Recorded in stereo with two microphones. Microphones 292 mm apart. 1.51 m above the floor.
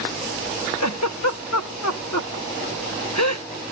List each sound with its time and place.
0.8 s a giggle: 65° left (ahead or behind)